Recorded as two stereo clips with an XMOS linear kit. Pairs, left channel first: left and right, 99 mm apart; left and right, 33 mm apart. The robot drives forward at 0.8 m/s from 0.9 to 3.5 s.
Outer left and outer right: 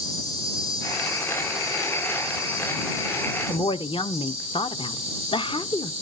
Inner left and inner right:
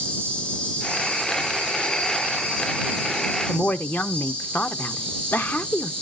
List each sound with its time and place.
0.0 s an insect: 35° left (ahead or behind), 5 m; by 6.0 s 25° left (ahead or behind), 7 m
3.5 s a woman speaking: 60° left (ahead or behind), 0.6 m